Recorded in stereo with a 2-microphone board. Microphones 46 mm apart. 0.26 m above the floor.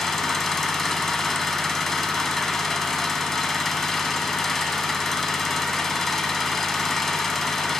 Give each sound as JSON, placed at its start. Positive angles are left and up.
{"t": 0.0, "sound": "an engine running", "side_deg": 5, "distance_m": 0.7}